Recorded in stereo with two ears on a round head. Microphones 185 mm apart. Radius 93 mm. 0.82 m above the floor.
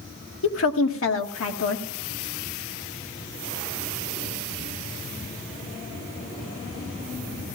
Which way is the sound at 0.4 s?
70° left (ahead or behind).